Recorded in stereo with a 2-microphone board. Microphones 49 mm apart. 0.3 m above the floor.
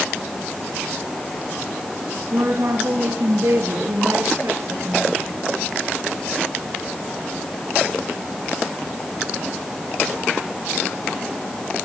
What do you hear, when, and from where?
2.3 s a woman speaking: 65° right (ahead or behind), 4.5 m; by 5.4 s 75° right (ahead or behind), 5 m